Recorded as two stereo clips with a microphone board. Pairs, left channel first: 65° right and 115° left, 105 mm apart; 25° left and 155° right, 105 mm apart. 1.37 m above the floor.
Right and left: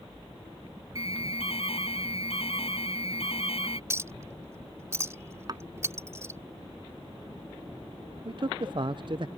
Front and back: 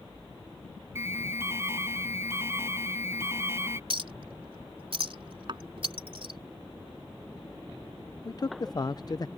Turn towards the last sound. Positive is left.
turn(degrees=75)